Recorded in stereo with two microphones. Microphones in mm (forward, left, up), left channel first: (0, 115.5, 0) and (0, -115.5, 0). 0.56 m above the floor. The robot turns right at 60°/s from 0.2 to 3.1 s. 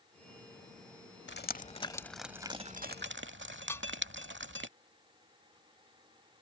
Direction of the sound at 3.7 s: 10° left (ahead or behind).